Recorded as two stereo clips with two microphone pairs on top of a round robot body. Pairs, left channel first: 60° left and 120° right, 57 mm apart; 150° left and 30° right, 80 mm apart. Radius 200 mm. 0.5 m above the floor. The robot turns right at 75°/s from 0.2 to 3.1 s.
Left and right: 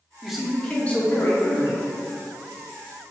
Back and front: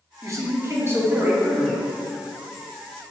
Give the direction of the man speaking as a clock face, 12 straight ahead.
1 o'clock.